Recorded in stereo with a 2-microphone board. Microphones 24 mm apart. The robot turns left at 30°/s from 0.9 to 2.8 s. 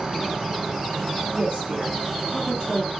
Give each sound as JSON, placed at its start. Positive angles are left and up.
{"t": 0.0, "sound": "an insect", "azimuth_deg": -50, "distance_m": 1.3}
{"t": 1.3, "sound": "a woman speaking", "side_deg": -35, "distance_m": 1.8}